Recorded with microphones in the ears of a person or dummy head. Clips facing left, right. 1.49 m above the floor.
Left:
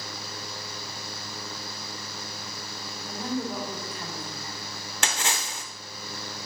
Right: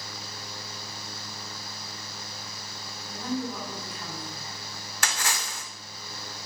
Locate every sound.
3.1 s a woman speaking: 40° left (ahead or behind), 3 m
5.0 s a splash: 20° left (ahead or behind), 0.7 m